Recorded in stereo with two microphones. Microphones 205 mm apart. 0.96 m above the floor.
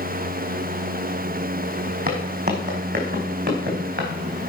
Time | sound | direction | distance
2.1 | footsteps | 45° right (ahead or behind) | 3 m